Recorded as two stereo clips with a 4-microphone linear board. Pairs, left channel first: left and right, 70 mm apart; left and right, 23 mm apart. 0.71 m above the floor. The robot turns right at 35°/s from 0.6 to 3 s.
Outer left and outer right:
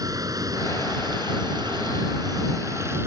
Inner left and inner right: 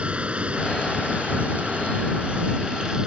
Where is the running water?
120° right; by 3.1 s 40° right.